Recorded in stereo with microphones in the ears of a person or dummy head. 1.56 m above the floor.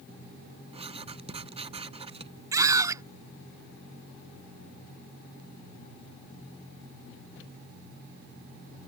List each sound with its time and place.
0.7 s writing: 30° right (ahead or behind)
2.5 s a scream: 15° right (ahead or behind)